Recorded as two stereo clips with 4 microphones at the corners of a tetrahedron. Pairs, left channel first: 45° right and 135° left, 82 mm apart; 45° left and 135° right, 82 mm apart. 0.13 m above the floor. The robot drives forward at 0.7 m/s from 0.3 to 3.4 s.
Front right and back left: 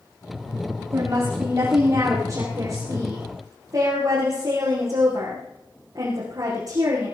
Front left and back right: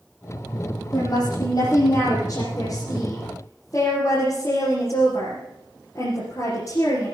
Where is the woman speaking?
90° left, 7.5 m; by 7.1 s 100° left, 7.5 m.